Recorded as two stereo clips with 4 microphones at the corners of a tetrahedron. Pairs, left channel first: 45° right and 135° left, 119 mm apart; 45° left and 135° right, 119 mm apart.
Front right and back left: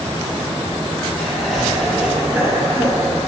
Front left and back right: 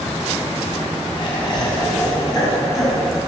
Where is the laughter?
35° left, 2.0 m; by 3.2 s 85° left, 2 m.